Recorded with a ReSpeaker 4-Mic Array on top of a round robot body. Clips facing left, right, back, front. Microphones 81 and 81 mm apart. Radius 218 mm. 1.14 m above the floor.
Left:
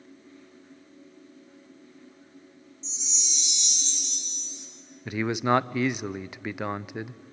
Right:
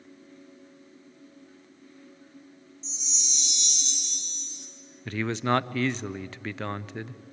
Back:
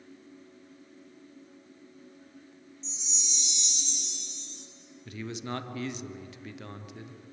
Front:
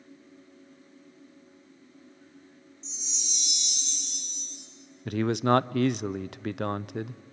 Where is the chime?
40° right, 2 m.